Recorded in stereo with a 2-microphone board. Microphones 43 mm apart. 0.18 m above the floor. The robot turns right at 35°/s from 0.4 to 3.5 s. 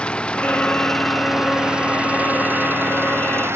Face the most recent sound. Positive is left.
turn(degrees=-100)